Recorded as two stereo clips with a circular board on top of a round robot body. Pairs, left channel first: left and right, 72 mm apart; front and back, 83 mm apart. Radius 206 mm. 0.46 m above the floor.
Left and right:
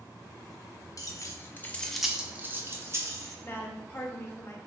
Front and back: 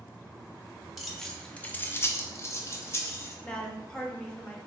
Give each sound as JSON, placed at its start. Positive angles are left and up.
{"t": 1.0, "sound": "keys jangling", "azimuth_deg": 90, "distance_m": 0.8}
{"t": 3.4, "sound": "a woman speaking", "azimuth_deg": 70, "distance_m": 0.9}